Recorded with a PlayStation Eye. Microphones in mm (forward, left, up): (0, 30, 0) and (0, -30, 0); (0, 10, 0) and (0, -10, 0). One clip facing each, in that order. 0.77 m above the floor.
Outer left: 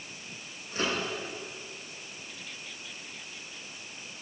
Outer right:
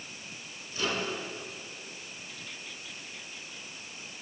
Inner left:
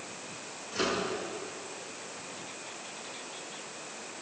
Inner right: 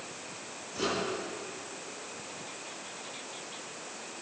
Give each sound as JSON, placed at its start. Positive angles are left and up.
{"t": 0.7, "sound": "a microwave", "side_deg": 40, "distance_m": 8.0}